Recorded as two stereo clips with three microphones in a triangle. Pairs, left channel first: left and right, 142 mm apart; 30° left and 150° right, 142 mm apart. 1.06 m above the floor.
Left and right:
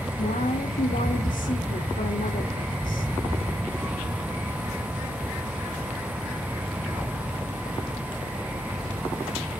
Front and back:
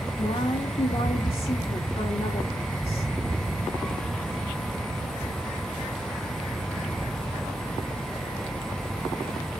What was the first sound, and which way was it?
A woman speaking, 80° left.